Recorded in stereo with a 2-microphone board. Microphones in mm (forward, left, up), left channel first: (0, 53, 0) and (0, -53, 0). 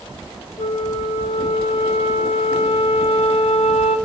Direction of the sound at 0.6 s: 70° left (ahead or behind).